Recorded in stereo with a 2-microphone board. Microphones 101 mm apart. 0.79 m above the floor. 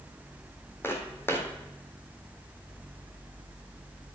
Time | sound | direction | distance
0.8 | footsteps | 20° left (ahead or behind) | 2 m